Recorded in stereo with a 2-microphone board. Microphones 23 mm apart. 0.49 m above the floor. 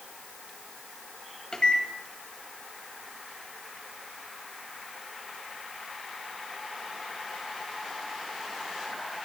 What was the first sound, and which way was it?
A microwave, 45° left (ahead or behind).